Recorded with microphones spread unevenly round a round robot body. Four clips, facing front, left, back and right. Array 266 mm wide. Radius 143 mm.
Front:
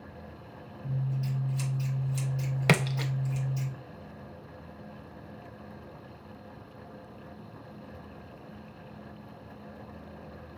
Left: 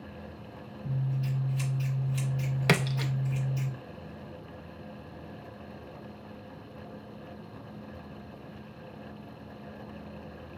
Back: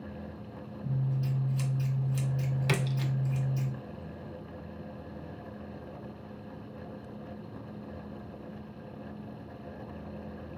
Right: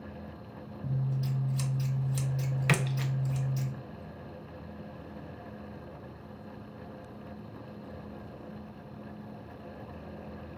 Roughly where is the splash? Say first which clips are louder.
Left 4 dB, front 7 dB; ahead left.